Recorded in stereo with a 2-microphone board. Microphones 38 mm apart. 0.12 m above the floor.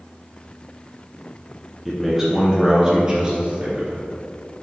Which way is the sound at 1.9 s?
5° left (ahead or behind).